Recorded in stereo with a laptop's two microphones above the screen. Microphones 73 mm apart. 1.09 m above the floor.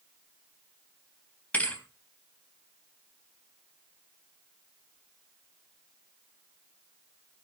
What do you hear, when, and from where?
1.5 s a thud: 20° left (ahead or behind), 3.5 m